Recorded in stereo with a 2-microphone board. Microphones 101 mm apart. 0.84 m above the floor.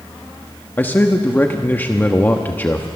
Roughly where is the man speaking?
Left.